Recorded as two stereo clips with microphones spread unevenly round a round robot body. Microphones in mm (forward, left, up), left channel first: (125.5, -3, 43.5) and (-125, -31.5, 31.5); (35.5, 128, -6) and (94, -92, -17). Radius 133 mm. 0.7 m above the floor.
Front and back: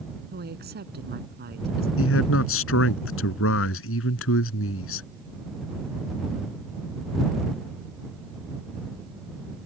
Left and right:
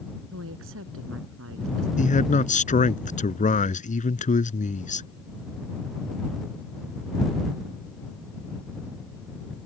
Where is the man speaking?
50° left.